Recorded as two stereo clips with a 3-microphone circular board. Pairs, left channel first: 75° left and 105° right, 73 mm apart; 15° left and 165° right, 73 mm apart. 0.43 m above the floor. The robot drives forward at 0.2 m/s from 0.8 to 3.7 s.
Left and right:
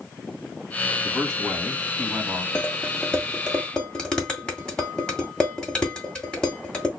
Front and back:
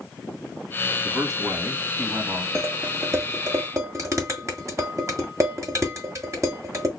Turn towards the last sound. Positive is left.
turn(degrees=150)